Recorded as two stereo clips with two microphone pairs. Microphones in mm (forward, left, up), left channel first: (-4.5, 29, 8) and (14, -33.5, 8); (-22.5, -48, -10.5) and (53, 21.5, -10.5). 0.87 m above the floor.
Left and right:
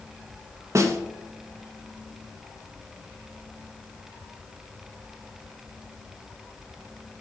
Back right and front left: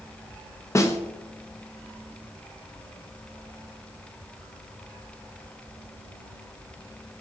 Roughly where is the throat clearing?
No throat clearing in this recording.